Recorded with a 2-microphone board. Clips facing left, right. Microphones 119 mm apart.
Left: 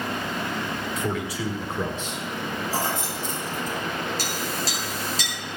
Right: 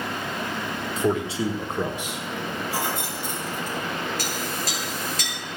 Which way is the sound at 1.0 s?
35° right (ahead or behind).